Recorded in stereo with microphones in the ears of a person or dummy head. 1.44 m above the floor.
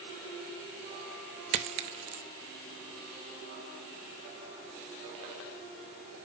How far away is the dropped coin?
About 0.8 m.